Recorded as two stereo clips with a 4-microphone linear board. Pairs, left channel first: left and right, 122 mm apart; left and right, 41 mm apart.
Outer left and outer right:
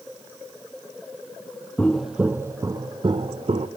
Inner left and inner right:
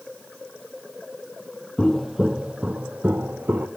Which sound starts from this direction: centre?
Footsteps, at 1.8 s.